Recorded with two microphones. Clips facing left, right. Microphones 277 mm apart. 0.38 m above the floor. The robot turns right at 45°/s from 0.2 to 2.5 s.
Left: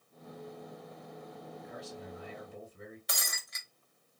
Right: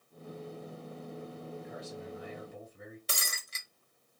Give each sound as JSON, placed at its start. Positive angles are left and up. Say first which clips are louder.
{"t": 1.6, "sound": "a man speaking", "louder": "right 2 dB", "azimuth_deg": 115, "distance_m": 2.5}
{"t": 3.1, "sound": "breaking glass", "louder": "right 1 dB", "side_deg": -35, "distance_m": 0.6}